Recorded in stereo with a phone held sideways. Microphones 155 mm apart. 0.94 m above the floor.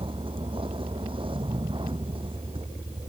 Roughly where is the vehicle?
Right.